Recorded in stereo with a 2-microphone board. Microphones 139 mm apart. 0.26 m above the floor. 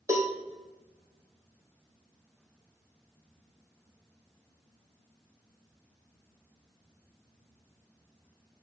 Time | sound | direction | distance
0.1 | a cowbell | 20° right (ahead or behind) | 2.5 m